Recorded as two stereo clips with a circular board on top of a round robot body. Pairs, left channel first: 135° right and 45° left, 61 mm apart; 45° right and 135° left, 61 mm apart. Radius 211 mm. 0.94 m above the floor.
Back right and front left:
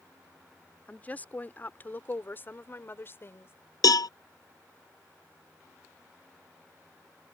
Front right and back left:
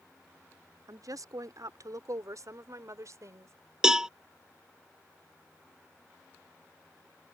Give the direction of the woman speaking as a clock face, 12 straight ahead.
7 o'clock.